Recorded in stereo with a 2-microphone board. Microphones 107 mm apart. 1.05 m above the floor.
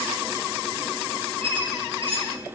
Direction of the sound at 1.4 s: 60° right (ahead or behind).